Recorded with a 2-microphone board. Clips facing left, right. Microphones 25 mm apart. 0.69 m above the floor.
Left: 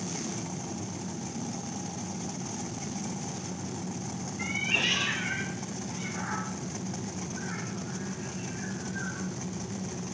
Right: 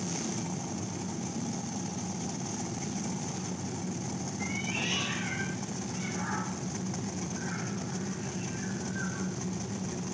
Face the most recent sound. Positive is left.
turn(degrees=15)  # may be behind; listen again after turning